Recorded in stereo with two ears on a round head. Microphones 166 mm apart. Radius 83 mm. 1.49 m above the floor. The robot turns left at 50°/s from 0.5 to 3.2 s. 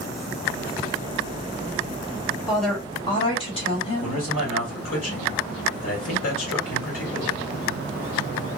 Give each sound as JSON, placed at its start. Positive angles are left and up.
{"t": 2.5, "sound": "a woman speaking", "azimuth_deg": -175, "distance_m": 1.3}
{"t": 4.0, "sound": "a man speaking", "side_deg": 85, "distance_m": 1.9}